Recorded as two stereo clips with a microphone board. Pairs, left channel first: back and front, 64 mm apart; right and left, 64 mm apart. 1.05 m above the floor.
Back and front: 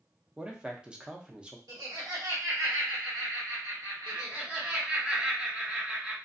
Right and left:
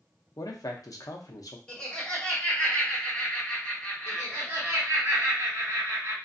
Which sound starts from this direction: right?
A man speaking, at 0.4 s.